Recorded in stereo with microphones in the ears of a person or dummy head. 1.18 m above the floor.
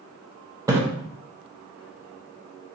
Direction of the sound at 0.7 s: 15° right (ahead or behind).